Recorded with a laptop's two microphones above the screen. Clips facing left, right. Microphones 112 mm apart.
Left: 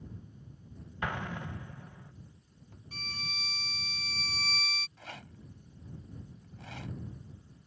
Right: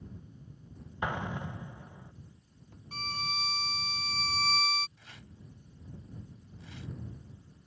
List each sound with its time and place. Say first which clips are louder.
1.0 s an explosion: right 2 dB; 15° right (ahead or behind)
2.9 s a violin: right 8 dB; 45° right (ahead or behind)
5.0 s a rattle: left 6 dB; 85° left